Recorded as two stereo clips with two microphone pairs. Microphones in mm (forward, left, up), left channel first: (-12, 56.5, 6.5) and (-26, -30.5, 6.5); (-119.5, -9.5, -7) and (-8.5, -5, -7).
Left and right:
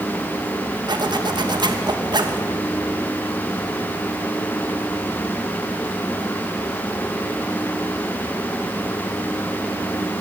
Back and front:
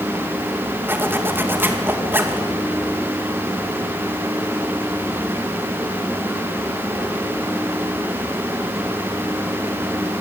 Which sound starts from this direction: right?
A zipper, at 0.9 s.